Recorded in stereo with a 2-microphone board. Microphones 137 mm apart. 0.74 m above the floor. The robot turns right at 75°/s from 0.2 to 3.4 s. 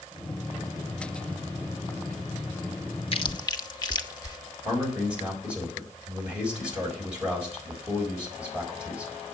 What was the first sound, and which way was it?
Chewing, 40° left (ahead or behind).